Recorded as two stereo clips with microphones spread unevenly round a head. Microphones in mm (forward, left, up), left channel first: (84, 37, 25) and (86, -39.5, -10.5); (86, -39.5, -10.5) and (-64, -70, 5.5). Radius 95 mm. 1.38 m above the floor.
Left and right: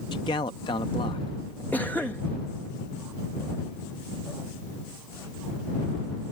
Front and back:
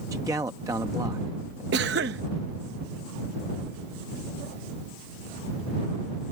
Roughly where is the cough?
Behind.